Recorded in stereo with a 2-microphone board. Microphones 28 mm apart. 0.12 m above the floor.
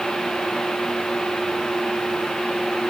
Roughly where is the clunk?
I don't hear a clunk.